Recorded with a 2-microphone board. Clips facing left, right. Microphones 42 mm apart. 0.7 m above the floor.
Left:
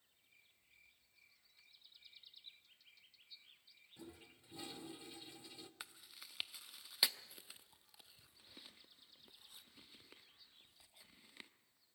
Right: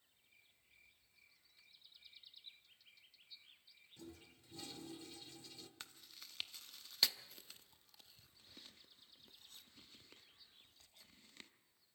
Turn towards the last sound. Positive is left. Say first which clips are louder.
# left 2 dB
turn(degrees=15)  # may be behind; listen again after turning